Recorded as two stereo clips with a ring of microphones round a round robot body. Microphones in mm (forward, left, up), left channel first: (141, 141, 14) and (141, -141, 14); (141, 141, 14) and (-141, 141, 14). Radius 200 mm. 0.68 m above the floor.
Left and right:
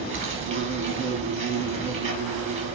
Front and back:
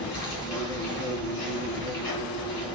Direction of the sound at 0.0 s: 40° right.